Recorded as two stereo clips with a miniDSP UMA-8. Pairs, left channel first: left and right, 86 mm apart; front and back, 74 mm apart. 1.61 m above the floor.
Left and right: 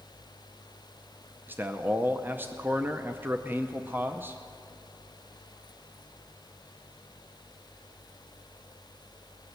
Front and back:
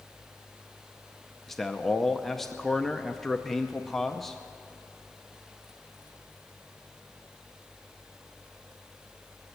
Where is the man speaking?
80° right, 0.6 m.